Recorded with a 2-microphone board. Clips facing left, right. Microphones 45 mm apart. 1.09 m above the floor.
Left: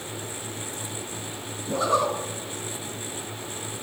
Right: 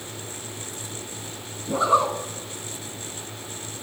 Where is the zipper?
15° right (ahead or behind), 1.9 m.